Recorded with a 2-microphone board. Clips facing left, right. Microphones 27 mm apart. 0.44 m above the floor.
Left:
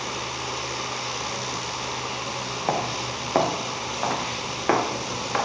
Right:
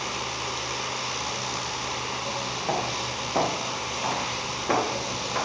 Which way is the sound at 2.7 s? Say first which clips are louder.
Left 3 dB; 35° left (ahead or behind).